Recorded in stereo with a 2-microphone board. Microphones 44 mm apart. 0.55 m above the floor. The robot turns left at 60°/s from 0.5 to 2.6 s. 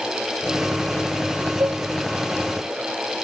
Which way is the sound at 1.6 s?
75° right (ahead or behind).